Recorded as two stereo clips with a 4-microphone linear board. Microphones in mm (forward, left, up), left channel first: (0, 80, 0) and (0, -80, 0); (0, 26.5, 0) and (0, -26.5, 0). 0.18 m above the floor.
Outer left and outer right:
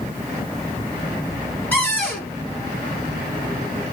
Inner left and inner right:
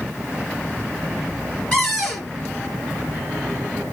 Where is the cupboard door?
10° left (ahead or behind), 1.9 m.